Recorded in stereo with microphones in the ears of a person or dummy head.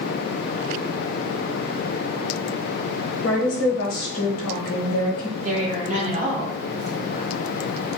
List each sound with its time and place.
3.2 s a woman speaking: 80° left, 0.9 m
5.4 s a woman speaking: 50° right (ahead or behind), 1.4 m